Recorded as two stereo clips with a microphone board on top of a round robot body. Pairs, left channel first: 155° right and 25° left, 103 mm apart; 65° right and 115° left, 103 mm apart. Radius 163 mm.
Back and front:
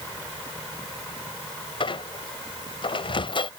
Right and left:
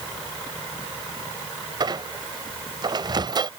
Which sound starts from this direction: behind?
A squeak, at 1.8 s.